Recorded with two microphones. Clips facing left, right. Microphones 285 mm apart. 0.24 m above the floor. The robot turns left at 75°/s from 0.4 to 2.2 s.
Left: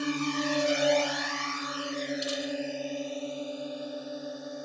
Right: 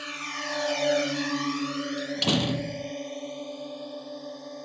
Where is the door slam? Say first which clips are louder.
Right 6 dB; 80° right; by 2.9 s 70° right (ahead or behind).